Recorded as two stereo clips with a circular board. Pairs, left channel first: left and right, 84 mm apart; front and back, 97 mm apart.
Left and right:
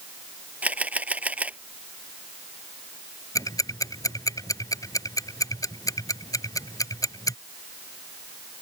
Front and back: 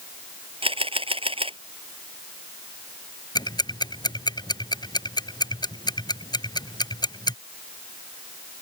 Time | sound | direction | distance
0.6 | a camera shutter | 165° right | ?
3.4 | ticking | 45° left | ?